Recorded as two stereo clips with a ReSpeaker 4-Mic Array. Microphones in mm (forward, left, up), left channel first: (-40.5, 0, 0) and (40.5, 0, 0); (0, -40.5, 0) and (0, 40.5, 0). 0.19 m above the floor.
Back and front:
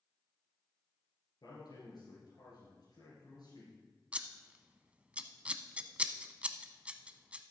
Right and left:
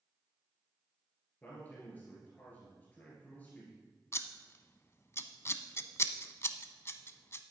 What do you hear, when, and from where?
1.4 s a man speaking: 160° right, 4 m
4.1 s scissors: 60° right, 0.7 m